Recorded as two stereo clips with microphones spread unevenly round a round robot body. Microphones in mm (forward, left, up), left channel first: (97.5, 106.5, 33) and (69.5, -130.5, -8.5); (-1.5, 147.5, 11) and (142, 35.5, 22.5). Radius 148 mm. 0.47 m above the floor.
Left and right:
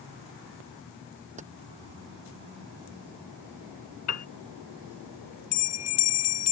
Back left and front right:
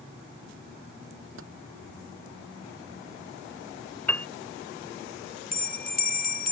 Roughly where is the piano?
Ahead left.